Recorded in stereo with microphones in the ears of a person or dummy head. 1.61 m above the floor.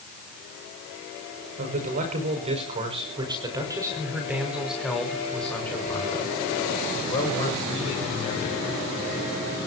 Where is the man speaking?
40° right (ahead or behind), 6.5 m; by 8.6 s 35° left (ahead or behind), 8.5 m.